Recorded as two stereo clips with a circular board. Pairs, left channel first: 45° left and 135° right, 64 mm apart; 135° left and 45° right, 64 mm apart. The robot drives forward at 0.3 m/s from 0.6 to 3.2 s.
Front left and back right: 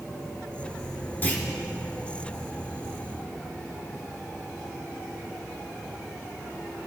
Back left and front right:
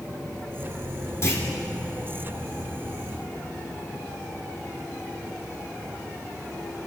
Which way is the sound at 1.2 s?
100° left.